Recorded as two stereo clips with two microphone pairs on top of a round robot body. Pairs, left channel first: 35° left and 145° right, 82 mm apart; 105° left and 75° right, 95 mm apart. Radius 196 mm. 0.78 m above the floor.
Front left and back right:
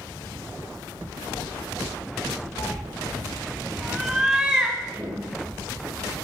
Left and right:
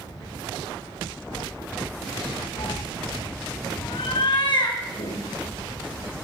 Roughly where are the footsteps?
Behind left.